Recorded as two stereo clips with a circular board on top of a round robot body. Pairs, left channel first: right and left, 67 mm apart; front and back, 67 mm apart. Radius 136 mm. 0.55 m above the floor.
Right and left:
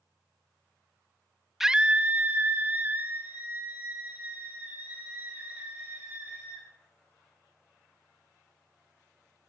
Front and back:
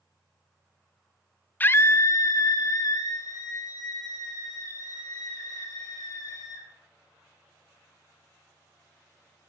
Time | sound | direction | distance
1.6 | a scream | 10° left | 0.7 m